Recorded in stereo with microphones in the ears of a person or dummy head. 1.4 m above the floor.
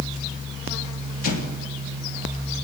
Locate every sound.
1.2 s an explosion: 50° left (ahead or behind), 1.9 m